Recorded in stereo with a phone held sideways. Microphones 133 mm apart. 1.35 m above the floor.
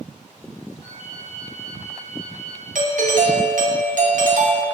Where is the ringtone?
35° left (ahead or behind), 4 m.